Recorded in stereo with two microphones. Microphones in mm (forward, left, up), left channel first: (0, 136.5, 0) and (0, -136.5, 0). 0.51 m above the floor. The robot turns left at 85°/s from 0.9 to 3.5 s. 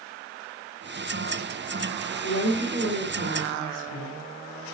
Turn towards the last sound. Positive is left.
turn(degrees=-60)